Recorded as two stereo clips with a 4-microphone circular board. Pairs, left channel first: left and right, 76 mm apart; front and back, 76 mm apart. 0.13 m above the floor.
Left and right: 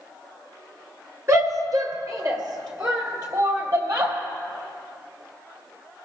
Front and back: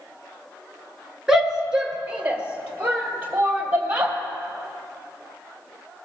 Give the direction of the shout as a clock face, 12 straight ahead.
3 o'clock.